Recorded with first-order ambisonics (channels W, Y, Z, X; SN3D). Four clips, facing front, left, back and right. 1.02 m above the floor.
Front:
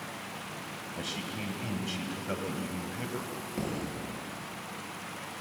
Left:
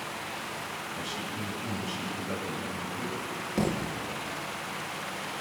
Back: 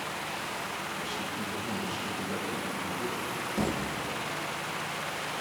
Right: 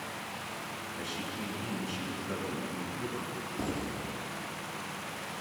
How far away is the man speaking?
About 5.5 m.